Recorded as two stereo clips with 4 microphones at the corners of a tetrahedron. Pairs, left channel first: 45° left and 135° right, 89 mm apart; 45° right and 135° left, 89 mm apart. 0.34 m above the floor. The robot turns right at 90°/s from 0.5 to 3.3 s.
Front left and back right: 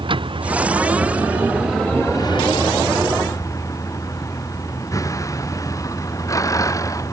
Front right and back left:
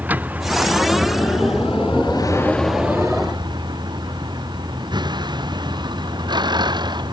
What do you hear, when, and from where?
0.0 s a vehicle: 155° right; by 7.1 s 100° left